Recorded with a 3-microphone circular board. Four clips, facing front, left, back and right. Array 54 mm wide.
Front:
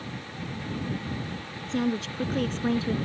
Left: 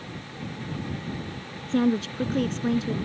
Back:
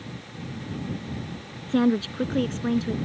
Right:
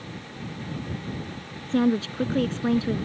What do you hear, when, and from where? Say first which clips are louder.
1.7 s a woman speaking: right 1 dB, back 6 dB; 165° right; by 3.0 s 55° right